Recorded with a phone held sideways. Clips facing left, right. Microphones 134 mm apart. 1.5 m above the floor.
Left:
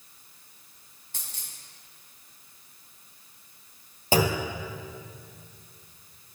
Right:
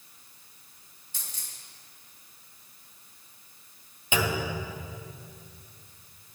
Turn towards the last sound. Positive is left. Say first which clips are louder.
# left 4 dB
turn(degrees=35)  # may be behind; listen again after turning